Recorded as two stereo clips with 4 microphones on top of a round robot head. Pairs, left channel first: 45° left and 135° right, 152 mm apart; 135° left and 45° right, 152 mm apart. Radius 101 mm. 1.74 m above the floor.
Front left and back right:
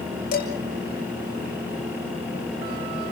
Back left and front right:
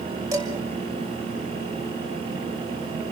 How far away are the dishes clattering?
About 6.5 m.